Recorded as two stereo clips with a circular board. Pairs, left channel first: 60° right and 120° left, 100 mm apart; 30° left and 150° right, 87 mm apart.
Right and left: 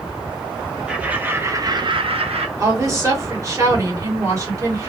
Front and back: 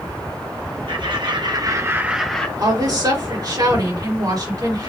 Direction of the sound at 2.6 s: 175° left.